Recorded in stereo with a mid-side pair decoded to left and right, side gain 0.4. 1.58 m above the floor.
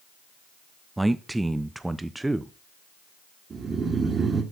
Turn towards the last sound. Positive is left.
turn(degrees=-45)